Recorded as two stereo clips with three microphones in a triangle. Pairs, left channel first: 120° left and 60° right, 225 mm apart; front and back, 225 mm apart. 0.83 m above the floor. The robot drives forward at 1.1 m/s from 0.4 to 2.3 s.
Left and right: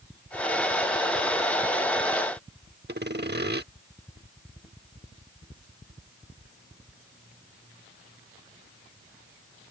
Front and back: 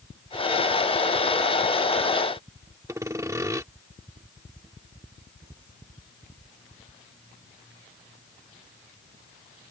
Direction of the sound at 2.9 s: 105° right.